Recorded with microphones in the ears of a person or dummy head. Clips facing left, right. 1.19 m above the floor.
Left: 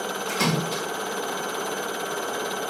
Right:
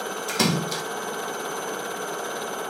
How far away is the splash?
About 1.1 m.